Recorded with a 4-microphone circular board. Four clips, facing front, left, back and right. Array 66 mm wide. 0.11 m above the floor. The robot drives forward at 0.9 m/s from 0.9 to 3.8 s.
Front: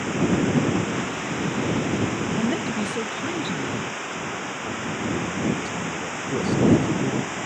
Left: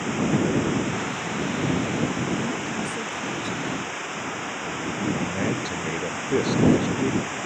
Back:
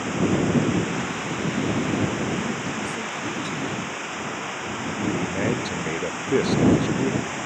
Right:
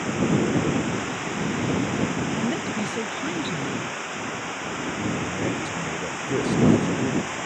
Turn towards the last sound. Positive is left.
turn(degrees=155)